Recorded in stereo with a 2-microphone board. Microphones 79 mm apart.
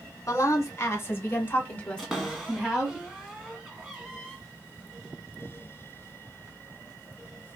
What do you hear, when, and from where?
0.2 s a woman speaking: 40° left (ahead or behind), 1.7 m; by 3.0 s 10° right (ahead or behind), 1.2 m
2.0 s a cupboard door: 5° right (ahead or behind), 1.4 m